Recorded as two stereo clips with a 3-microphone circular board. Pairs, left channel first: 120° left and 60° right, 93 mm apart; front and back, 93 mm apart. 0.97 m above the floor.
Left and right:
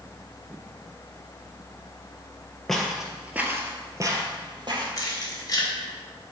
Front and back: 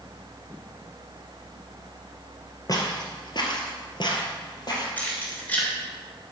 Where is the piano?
No piano in this recording.